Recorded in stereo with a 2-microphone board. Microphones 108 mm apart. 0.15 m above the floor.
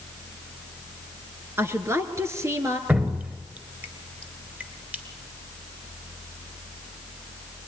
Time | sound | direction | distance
1.6 | a woman speaking | 25° right (ahead or behind) | 2.5 m
2.9 | dripping | 15° right (ahead or behind) | 2 m